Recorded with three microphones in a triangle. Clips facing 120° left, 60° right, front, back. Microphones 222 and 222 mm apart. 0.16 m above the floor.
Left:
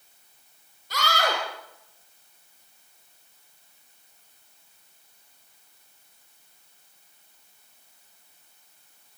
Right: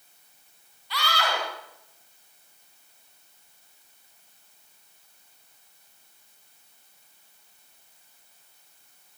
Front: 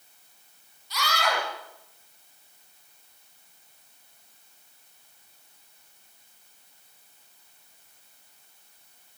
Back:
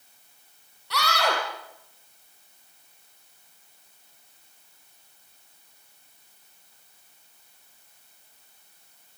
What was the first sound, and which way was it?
A scream, 165° left.